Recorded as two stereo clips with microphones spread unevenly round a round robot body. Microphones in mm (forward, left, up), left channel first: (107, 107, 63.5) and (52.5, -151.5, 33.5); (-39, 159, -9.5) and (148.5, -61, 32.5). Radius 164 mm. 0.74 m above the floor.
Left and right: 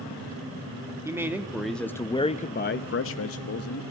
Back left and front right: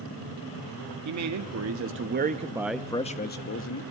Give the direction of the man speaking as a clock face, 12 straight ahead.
1 o'clock.